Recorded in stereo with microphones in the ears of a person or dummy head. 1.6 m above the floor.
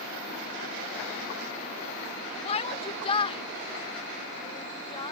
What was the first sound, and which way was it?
A shout, 30° left (ahead or behind).